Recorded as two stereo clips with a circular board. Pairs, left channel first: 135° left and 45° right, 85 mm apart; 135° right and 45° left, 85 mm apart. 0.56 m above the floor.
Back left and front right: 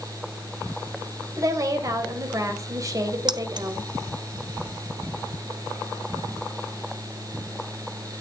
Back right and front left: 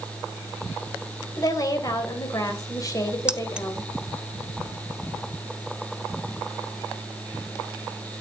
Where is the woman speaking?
90° right, 3 m.